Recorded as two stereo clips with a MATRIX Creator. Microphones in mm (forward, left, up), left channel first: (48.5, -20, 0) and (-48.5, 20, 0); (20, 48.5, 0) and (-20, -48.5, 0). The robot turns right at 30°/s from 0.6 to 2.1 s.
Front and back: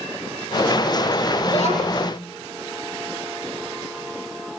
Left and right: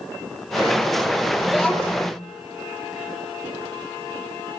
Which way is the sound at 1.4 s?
25° right.